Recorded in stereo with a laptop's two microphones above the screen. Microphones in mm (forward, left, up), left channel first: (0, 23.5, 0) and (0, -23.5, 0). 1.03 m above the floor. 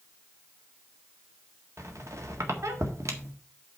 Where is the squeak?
80° right, 1.7 m.